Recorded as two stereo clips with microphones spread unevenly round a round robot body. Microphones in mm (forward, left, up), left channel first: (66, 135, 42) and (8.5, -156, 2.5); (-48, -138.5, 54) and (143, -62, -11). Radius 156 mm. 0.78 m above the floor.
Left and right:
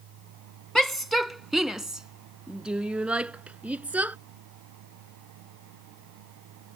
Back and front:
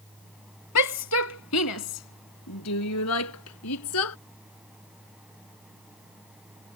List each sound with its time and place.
0.8 s a shout: 170° left; by 4.2 s 175° left